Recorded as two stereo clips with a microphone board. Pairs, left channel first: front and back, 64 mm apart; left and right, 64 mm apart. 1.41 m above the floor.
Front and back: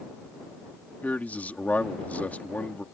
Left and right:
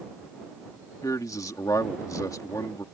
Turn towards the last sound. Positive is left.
turn(degrees=65)